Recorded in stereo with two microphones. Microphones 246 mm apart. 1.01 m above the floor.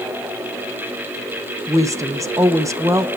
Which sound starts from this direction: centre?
A woman speaking, at 1.7 s.